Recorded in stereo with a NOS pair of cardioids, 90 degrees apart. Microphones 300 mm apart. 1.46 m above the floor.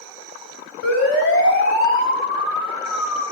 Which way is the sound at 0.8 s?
50° left.